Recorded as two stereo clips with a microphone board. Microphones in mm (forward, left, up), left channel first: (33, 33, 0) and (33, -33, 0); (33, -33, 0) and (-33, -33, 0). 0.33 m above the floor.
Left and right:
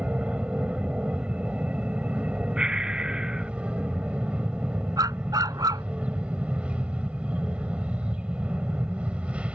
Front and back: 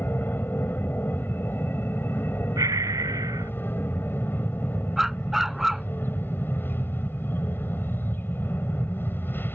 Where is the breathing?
165° right.